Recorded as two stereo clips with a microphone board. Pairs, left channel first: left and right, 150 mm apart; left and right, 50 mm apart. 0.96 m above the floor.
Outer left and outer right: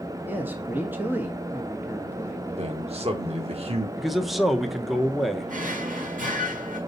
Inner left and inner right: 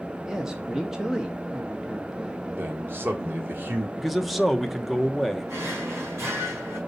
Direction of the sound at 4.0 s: Centre (ahead or behind).